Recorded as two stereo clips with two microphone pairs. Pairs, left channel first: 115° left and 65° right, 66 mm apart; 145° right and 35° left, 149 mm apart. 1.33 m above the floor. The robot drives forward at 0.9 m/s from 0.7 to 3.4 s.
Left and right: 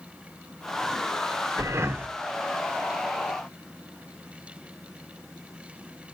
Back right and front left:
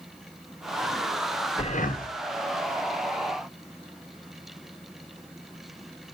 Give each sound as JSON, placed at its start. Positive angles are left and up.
{"t": 1.6, "sound": "breathing", "azimuth_deg": -100, "distance_m": 0.7}